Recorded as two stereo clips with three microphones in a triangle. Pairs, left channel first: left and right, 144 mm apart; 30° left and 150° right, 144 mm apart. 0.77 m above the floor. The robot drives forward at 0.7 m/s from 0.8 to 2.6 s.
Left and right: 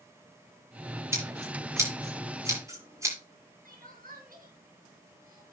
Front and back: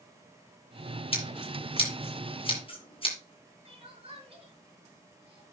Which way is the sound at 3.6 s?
100° right.